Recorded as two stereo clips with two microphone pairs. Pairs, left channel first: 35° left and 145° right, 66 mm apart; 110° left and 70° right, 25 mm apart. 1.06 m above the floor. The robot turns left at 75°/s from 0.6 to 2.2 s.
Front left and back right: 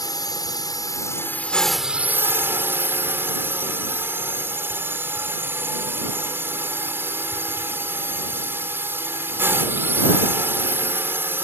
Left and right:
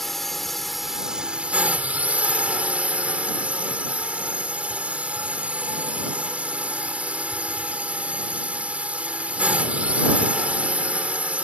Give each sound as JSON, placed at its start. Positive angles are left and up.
{"t": 0.0, "sound": "a drone", "azimuth_deg": 30}